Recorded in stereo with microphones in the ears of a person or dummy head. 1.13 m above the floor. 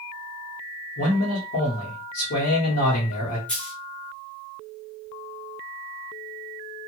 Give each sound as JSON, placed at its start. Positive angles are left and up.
{"t": 1.0, "sound": "a man speaking", "side_deg": 45, "distance_m": 1.1}
{"t": 3.5, "sound": "a dropped coin", "side_deg": 10, "distance_m": 0.7}